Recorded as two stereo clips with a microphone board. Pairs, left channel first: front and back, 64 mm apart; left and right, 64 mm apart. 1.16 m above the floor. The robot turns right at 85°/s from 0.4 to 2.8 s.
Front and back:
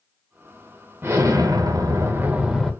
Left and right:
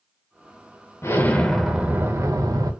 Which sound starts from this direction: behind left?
An explosion, at 1.0 s.